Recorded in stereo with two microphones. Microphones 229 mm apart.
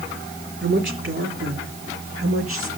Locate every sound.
0.6 s a woman speaking: 60° right (ahead or behind), 4.5 m; by 2.7 s 70° right (ahead or behind), 5 m